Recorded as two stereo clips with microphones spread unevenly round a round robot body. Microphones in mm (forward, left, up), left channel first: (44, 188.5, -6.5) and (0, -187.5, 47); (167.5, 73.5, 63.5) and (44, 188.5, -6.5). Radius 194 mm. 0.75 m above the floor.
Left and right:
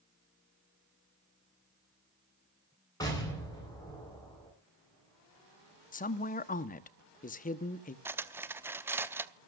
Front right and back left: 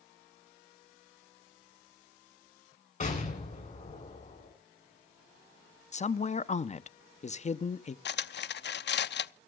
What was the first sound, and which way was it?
An explosion, 5° left.